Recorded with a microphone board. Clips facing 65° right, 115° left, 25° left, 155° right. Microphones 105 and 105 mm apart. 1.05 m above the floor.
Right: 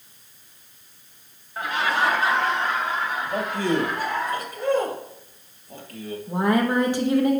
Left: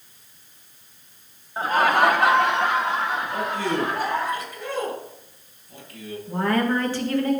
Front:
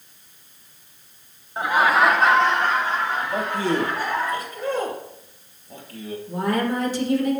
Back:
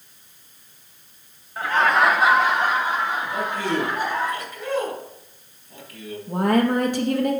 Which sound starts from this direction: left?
Laughter, at 1.6 s.